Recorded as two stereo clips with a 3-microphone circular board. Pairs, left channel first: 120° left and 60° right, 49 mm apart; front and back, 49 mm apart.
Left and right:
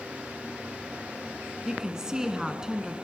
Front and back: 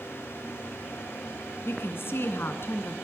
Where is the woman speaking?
15° left, 1.9 m.